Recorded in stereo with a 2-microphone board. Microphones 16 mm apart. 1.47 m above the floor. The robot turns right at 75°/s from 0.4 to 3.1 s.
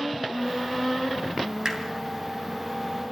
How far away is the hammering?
About 2.5 m.